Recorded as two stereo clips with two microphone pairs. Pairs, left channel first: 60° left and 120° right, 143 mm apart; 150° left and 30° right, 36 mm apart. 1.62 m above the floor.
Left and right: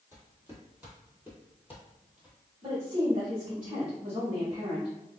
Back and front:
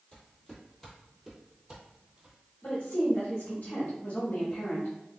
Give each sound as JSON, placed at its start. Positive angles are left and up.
{"t": 0.1, "sound": "footsteps", "azimuth_deg": 180, "distance_m": 1.8}
{"t": 2.6, "sound": "a woman speaking", "azimuth_deg": -175, "distance_m": 1.3}